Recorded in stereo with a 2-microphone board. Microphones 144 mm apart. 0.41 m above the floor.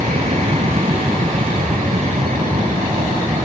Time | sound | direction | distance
0.0 | an aircraft | 50° right (ahead or behind) | ?